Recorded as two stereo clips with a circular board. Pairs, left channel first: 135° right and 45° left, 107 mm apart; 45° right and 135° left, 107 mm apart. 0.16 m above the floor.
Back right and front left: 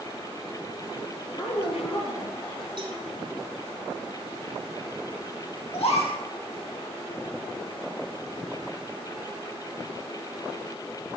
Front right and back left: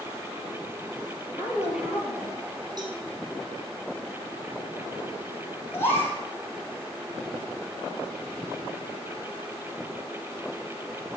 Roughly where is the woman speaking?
Behind right.